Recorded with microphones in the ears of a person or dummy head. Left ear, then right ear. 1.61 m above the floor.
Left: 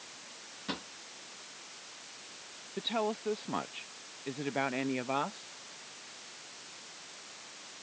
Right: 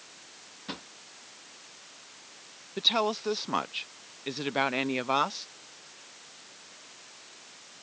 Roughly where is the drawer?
Centre.